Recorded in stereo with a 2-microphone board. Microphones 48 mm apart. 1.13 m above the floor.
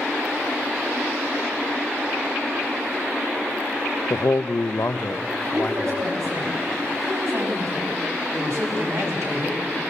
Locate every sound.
4.1 s a man speaking: 60° left (ahead or behind), 0.6 m; by 6.0 s 35° left (ahead or behind), 1.5 m
5.5 s a woman speaking: 80° right, 9 m
8.3 s a man speaking: 80° right, 8 m